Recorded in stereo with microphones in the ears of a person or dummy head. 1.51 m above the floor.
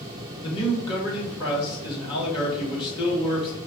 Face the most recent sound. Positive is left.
turn(degrees=30)  # may be behind; listen again after turning